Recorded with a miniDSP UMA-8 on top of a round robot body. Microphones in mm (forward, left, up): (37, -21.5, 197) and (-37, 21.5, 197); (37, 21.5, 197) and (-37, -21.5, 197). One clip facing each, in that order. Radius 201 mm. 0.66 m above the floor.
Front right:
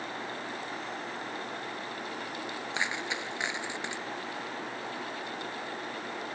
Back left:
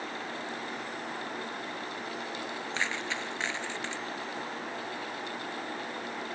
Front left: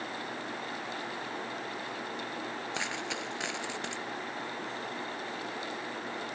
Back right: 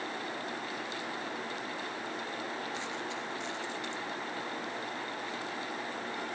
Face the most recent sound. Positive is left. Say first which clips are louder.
# even, front left 1 dB
turn(degrees=45)